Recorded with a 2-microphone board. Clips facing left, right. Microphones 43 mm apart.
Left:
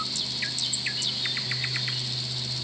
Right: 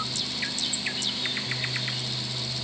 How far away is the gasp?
I don't hear a gasp.